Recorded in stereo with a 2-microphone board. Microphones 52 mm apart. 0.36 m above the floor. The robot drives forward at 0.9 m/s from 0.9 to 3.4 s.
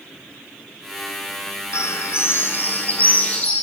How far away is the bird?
About 0.8 m.